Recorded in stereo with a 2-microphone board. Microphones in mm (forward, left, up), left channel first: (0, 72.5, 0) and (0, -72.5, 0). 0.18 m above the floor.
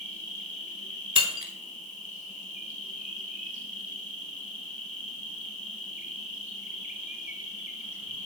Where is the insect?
65° left (ahead or behind), 1.2 m.